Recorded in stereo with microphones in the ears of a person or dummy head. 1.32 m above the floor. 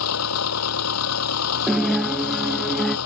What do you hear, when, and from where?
0.0 s an engine running: 80° left
1.7 s a guitar: centre (ahead or behind)